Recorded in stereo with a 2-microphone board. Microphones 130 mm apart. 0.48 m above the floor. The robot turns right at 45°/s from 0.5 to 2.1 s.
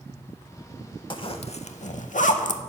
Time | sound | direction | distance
1.1 | a zipper | 40° left (ahead or behind) | 0.6 m